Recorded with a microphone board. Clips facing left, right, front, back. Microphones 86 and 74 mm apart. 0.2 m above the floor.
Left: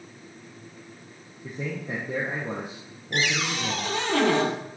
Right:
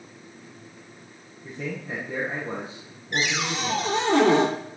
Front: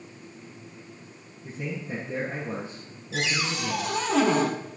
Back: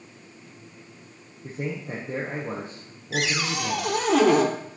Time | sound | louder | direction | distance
1.4 | a man speaking | even, back 2 dB | 145° left | 5 m
3.1 | a cupboard door | even, back 2 dB | 160° right | 2.5 m